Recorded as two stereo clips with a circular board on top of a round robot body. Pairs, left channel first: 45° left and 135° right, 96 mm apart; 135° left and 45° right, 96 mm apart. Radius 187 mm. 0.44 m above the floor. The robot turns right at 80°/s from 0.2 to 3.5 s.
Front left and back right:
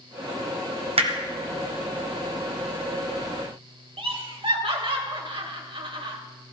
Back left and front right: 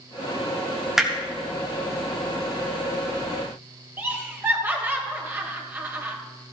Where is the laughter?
115° right, 3 m.